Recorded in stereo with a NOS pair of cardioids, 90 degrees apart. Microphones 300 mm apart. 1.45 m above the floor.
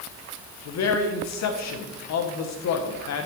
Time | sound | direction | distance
0.7 | a man speaking | 60° left | 1.3 m